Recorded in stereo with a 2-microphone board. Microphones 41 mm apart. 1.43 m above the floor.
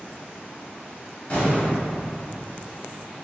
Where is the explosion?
40° left (ahead or behind), 1.5 m.